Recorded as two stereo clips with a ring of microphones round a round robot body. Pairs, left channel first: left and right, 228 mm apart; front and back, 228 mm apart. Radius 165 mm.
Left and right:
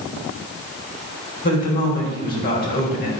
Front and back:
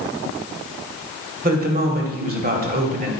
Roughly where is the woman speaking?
Behind left.